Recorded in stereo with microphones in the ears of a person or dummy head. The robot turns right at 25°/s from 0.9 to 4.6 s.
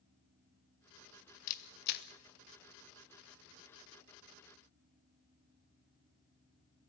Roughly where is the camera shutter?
Left.